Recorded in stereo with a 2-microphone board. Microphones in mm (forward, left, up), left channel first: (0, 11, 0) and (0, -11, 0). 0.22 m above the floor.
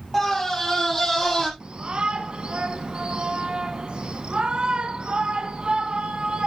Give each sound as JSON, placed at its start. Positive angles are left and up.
{"t": 0.1, "sound": "a scream", "side_deg": 15, "distance_m": 7.0}
{"t": 1.6, "sound": "a shout", "side_deg": -50, "distance_m": 2.0}